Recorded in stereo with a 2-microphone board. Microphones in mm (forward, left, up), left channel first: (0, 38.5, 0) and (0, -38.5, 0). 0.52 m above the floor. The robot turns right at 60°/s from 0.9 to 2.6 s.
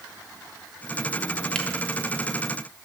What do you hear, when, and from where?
1.6 s a camera shutter: 10° left (ahead or behind), 0.8 m; by 1.7 s 15° left (ahead or behind), 0.8 m